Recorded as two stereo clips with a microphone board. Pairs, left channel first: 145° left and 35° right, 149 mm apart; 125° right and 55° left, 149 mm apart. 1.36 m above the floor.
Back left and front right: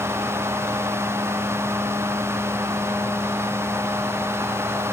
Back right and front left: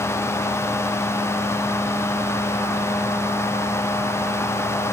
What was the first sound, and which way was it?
Only background noise.